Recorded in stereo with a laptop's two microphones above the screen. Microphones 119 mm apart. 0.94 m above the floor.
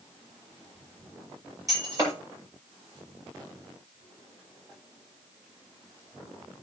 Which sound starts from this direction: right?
Breaking glass, at 1.7 s.